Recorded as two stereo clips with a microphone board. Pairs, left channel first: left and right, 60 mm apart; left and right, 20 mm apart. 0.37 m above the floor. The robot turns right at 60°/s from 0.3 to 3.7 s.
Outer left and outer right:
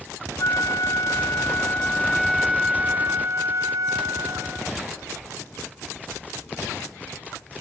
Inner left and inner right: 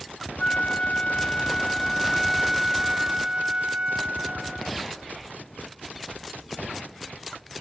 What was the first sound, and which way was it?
A flute, 60° left.